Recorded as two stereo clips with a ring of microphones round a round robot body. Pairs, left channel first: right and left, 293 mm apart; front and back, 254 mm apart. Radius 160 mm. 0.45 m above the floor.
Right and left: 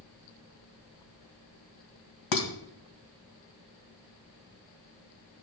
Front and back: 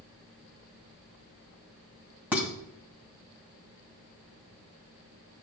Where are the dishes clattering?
95° right, 2.5 m.